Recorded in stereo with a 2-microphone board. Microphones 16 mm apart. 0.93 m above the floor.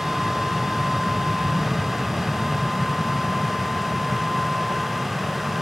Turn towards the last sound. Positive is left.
turn(degrees=-25)  # may be behind; listen again after turning